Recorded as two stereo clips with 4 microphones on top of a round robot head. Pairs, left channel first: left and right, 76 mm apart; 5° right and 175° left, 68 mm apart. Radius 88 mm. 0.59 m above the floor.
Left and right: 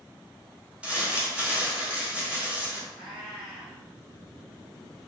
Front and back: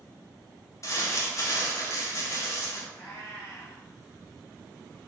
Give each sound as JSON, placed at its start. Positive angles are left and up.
{"t": 0.8, "sound": "crumpling", "azimuth_deg": -20, "distance_m": 1.1}
{"t": 2.9, "sound": "a cat meowing", "azimuth_deg": -85, "distance_m": 1.9}